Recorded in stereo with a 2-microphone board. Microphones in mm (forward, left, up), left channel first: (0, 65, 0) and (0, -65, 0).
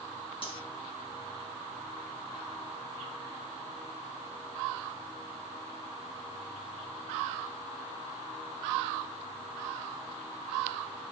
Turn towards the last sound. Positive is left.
turn(degrees=45)  # may be behind; listen again after turning